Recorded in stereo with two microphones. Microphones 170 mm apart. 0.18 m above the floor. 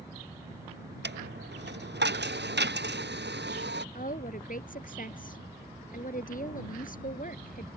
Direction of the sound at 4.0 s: 55° left (ahead or behind).